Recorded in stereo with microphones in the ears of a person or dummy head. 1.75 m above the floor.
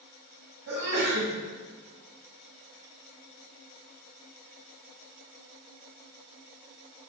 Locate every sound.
0.7 s a sneeze: 75° right (ahead or behind), 1.9 m